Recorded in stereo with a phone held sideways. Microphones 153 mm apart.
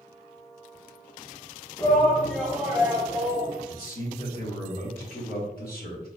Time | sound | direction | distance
1.8 | a shout | 20° left (ahead or behind) | 0.9 m
3.7 | a man speaking | 70° left (ahead or behind) | 1.3 m